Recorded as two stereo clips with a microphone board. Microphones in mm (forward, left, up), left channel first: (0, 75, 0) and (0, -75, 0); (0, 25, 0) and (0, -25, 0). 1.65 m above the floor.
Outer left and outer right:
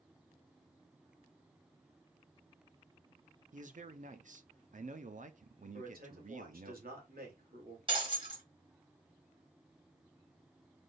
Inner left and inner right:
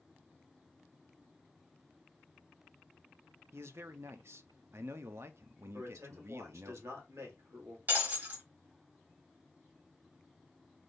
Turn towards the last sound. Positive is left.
turn(degrees=-35)  # may be behind; listen again after turning